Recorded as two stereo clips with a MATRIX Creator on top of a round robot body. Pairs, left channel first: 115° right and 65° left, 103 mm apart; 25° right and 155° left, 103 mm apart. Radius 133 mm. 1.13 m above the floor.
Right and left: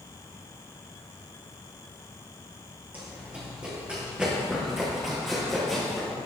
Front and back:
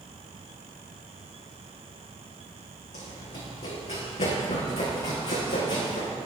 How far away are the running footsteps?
About 5 m.